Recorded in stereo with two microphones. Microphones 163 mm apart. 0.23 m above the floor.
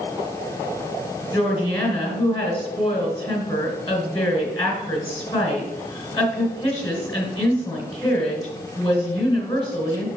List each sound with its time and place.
1.3 s a woman speaking: 30° left (ahead or behind), 2.5 m